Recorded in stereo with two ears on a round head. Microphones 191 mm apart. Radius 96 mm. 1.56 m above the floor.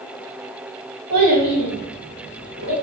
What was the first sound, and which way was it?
A child speaking, 50° right (ahead or behind).